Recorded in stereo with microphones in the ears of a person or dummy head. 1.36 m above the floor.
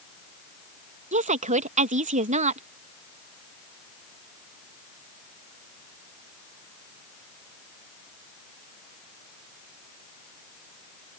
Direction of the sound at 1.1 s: 35° right (ahead or behind).